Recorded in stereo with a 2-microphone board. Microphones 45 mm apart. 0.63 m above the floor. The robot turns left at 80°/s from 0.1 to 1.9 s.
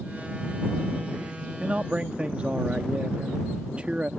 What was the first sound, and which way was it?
A man speaking, 30° right (ahead or behind).